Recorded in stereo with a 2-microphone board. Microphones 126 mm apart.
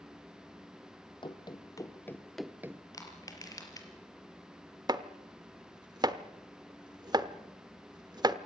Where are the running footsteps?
40° left (ahead or behind), 1.8 m; by 2.8 s 25° right (ahead or behind), 0.9 m.